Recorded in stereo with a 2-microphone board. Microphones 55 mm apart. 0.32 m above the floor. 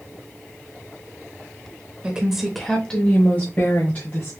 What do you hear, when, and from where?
2.0 s a woman speaking: 20° right (ahead or behind), 0.9 m; by 4.3 s 45° left (ahead or behind), 1.5 m